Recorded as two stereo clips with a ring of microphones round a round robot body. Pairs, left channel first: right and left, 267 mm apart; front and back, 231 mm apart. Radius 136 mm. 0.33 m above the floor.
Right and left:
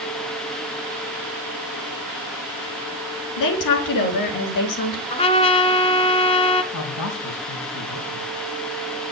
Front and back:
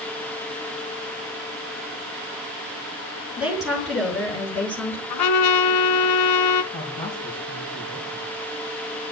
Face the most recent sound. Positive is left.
turn(degrees=-75)